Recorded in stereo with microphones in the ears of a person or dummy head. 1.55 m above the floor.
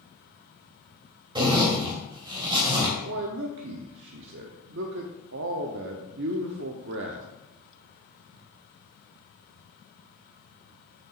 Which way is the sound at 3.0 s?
65° right (ahead or behind).